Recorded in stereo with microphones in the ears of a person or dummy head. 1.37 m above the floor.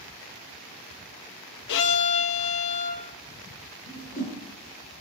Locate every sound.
1.7 s a violin: 70° left (ahead or behind), 1.5 m
3.9 s a whoosh: 50° left (ahead or behind), 7 m